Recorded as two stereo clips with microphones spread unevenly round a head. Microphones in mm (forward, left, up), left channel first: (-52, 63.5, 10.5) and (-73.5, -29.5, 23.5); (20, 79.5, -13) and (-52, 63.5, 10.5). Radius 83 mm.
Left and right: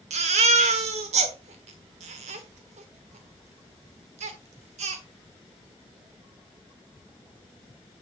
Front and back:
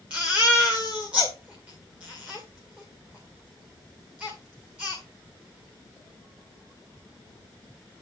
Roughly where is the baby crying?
Right.